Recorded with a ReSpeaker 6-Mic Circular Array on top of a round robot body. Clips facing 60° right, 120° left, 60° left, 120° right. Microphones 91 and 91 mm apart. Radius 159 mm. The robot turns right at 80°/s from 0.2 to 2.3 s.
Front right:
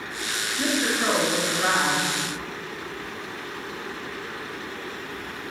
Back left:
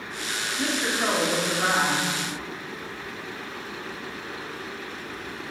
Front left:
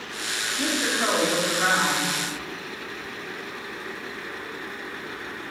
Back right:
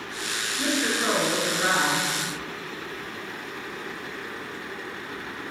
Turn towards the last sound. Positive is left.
turn(degrees=155)